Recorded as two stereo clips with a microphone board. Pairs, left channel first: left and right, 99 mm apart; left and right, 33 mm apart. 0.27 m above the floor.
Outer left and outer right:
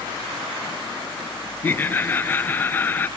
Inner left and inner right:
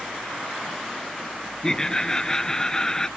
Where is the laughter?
20° left (ahead or behind).